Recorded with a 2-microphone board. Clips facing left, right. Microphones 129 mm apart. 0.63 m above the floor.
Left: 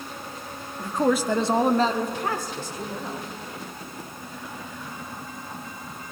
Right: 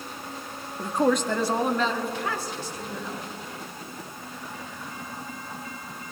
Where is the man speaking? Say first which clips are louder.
Even; 25° right (ahead or behind), 0.5 m; by 3.3 s 50° left (ahead or behind), 2.5 m.